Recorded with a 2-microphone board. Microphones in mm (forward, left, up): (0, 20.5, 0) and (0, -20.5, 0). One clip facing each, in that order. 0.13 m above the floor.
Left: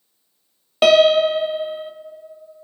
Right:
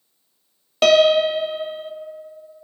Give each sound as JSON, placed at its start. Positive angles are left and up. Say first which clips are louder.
{"t": 0.8, "sound": "a piano", "louder": "left 1 dB", "side_deg": 10, "distance_m": 0.8}